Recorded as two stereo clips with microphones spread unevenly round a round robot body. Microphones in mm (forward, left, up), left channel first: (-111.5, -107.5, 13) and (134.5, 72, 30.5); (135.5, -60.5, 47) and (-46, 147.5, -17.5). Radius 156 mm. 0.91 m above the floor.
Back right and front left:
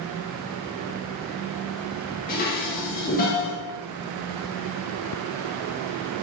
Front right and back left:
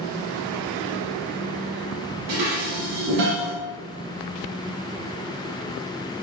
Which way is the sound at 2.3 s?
155° left.